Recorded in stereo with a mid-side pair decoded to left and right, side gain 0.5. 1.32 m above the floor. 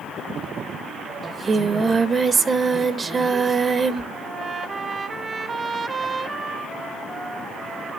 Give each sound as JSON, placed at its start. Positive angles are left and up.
{"t": 1.2, "sound": "singing", "azimuth_deg": -35, "distance_m": 1.7}
{"t": 4.1, "sound": "a trumpet", "azimuth_deg": -35, "distance_m": 1.4}